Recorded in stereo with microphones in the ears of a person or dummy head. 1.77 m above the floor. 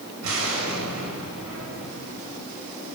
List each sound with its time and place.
0.2 s an explosion: 85° right, 8.5 m